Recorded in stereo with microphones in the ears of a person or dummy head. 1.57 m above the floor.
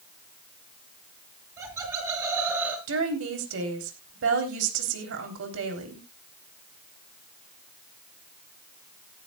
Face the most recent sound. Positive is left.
turn(degrees=-80)